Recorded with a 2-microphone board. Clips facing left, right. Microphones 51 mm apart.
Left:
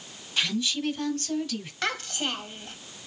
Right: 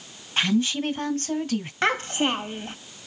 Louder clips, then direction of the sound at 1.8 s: Right 7 dB; 30° right (ahead or behind).